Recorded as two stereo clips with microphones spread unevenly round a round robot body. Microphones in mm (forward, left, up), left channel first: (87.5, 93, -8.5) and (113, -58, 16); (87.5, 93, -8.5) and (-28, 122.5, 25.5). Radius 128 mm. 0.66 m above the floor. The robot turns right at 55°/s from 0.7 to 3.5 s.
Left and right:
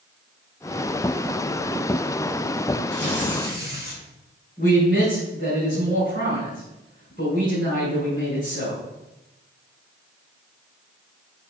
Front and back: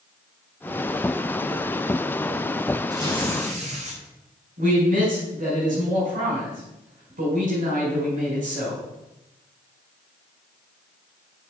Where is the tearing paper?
105° left, 5.5 m; by 4.0 s 140° left, 5.5 m.